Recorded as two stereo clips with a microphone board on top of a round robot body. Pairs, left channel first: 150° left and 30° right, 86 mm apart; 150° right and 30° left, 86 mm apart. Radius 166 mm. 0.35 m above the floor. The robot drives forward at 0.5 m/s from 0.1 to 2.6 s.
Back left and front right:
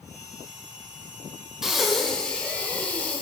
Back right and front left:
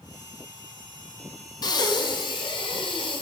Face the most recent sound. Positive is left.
turn(degrees=-135)